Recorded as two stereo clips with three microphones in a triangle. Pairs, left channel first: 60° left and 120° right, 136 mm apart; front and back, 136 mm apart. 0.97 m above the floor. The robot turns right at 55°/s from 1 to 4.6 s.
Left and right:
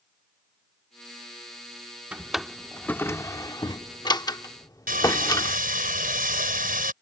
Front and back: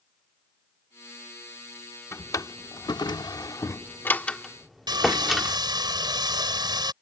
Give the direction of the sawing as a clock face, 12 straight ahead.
4 o'clock.